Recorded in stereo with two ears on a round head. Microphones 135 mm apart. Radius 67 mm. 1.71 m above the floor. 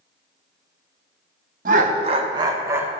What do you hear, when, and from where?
1.6 s laughter: 60° right (ahead or behind), 1.4 m; by 2.9 s 15° right (ahead or behind), 1.9 m